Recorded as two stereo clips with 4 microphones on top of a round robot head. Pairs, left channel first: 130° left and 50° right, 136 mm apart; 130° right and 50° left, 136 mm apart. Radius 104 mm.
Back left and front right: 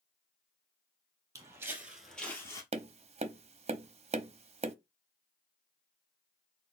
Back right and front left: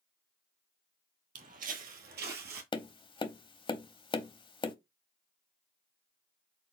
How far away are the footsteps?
About 1.2 m.